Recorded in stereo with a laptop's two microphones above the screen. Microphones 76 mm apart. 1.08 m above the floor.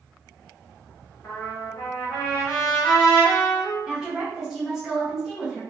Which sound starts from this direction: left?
A trumpet, at 1.2 s.